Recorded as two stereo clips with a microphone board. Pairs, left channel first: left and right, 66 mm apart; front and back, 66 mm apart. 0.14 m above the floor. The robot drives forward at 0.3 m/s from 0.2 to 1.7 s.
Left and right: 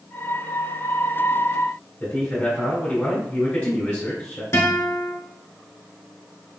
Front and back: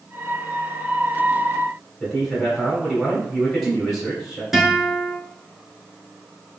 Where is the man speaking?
100° left, 1.1 m.